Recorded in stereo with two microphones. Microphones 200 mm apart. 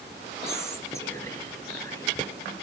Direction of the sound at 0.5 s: 15° left (ahead or behind).